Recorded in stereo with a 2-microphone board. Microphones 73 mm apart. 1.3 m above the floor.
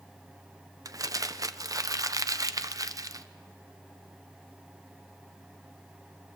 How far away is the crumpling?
About 0.6 m.